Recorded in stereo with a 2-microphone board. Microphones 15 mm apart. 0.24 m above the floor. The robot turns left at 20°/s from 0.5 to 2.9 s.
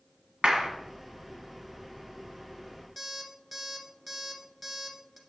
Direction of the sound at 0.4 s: 55° right (ahead or behind).